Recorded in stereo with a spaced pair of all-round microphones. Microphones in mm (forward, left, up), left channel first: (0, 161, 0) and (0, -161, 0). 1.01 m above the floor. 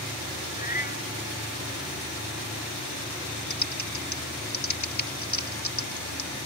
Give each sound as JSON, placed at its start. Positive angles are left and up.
{"t": 0.6, "sound": "a cat meowing", "side_deg": 25}
{"t": 3.5, "sound": "typing on a keyboard", "side_deg": 60}